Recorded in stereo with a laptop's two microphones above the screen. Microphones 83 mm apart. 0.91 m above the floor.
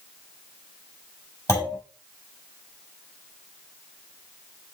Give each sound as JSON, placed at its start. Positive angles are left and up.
{"t": 1.5, "sound": "a clunk", "side_deg": 30, "distance_m": 4.5}